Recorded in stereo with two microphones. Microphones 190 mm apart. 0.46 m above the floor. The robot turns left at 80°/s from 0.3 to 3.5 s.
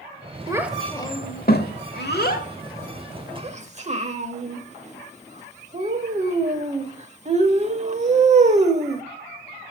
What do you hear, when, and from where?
0.5 s a child speaking: 20° right (ahead or behind), 0.9 m; by 9.0 s 35° right (ahead or behind), 0.9 m